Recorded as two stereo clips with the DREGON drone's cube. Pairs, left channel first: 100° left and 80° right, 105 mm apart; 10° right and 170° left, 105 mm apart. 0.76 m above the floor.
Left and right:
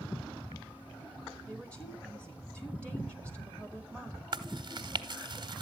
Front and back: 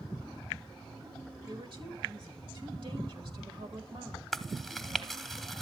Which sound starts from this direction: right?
Chewing, at 4.3 s.